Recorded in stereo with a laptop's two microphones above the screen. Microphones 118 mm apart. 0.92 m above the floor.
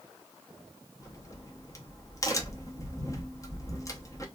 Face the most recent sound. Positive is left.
turn(degrees=25)  # may be behind; listen again after turning